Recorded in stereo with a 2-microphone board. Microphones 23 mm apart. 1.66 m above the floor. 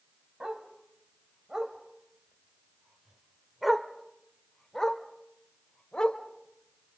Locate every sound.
0.4 s a dog barking: 50° right (ahead or behind), 3 m; by 7.0 s 55° left (ahead or behind), 2.5 m